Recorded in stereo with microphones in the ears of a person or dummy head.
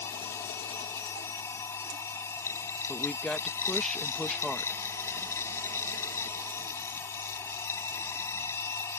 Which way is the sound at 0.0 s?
15° left (ahead or behind).